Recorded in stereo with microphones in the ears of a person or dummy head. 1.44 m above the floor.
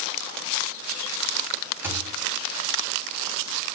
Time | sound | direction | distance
1.8 | a thud | 10° right (ahead or behind) | 2.5 m